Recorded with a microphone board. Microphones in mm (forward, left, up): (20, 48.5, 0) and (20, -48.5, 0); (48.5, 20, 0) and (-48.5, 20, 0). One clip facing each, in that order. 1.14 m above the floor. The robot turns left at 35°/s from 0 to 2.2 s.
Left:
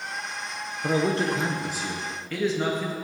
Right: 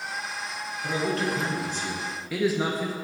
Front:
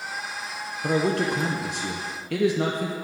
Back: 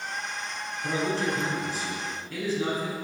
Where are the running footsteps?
I don't hear running footsteps.